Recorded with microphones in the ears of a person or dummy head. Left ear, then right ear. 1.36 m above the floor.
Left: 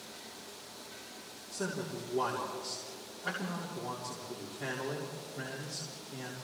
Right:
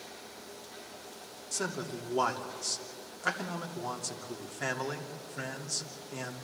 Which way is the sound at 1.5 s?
70° right (ahead or behind).